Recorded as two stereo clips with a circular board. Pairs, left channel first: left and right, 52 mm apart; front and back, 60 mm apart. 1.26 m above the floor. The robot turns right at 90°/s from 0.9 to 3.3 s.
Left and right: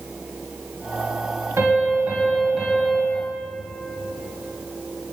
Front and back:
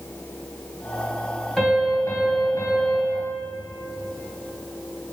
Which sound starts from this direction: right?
A piano, at 1.6 s.